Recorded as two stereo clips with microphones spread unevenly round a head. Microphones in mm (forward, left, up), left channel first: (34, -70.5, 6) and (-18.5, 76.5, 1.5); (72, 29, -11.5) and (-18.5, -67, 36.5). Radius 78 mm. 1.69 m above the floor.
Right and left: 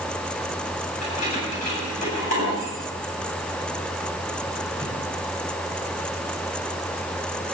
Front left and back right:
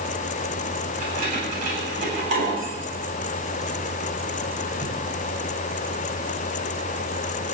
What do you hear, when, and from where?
1.0 s keys jangling: 115° right, 9 m; by 4.9 s 95° right, 7.5 m